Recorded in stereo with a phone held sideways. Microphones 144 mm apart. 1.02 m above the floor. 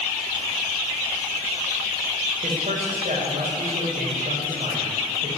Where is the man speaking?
60° right (ahead or behind), 4 m.